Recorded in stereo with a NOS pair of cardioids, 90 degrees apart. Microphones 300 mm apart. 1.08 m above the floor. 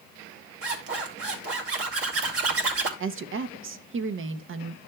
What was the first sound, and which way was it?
A zipper, 50° right.